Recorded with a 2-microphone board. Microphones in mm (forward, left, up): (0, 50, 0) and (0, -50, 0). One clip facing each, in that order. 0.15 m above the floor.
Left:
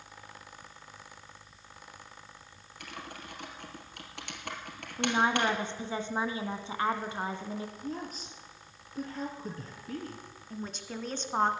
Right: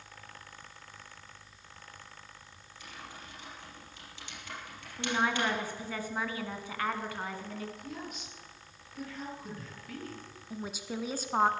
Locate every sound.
2.8 s typing on a keyboard: 65° left (ahead or behind), 2.5 m
5.0 s a woman speaking: 25° left (ahead or behind), 1.4 m
7.8 s a woman speaking: 35° left (ahead or behind), 2.5 m
10.5 s a woman speaking: 5° right (ahead or behind), 1.2 m